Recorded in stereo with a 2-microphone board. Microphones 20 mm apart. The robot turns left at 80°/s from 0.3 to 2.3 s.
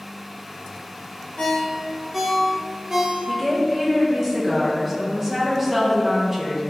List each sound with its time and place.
1.4 s a ringtone: 45° left (ahead or behind), 0.6 m; by 3.2 s 20° right (ahead or behind), 0.6 m
3.3 s a woman speaking: 15° right (ahead or behind), 0.6 m